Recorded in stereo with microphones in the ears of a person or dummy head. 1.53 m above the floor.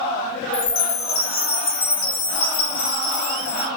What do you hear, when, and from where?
0.5 s a chime: 65° left (ahead or behind), 2 m